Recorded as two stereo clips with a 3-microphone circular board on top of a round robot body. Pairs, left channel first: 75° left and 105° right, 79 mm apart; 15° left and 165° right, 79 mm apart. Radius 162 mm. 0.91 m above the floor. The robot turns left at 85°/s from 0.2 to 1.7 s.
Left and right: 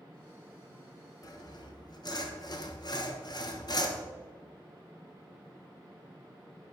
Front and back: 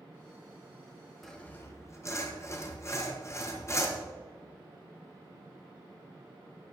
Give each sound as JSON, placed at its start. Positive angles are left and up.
{"t": 1.2, "sound": "sawing", "azimuth_deg": 105, "distance_m": 1.7}